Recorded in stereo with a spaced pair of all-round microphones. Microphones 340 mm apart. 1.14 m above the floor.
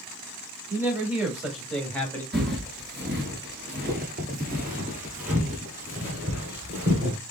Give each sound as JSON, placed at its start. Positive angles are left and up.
{"t": 0.7, "sound": "a man speaking", "side_deg": -5, "distance_m": 2.5}
{"t": 2.3, "sound": "footsteps", "side_deg": -30, "distance_m": 1.2}